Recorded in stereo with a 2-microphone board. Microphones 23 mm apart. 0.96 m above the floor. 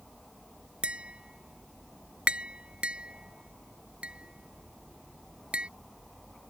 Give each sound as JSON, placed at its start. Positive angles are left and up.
{"t": 0.8, "sound": "tapping", "side_deg": -60}